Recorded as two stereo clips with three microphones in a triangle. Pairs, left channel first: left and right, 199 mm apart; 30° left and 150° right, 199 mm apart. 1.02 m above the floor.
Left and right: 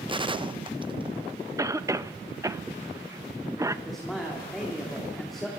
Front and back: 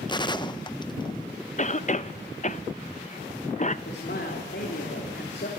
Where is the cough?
20° right, 0.9 m.